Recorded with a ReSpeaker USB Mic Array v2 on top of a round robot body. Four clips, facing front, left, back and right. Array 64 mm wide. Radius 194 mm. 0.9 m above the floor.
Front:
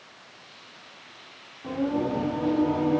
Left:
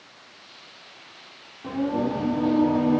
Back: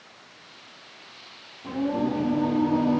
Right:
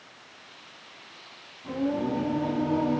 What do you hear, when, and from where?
1.6 s singing: 75° left, 3 m